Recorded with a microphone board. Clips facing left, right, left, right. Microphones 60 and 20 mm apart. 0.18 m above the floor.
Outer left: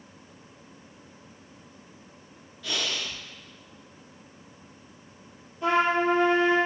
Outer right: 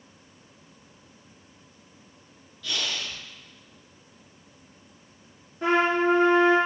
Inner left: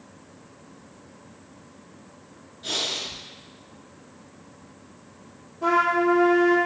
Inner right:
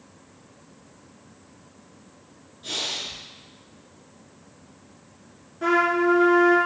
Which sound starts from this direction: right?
A trumpet, at 5.6 s.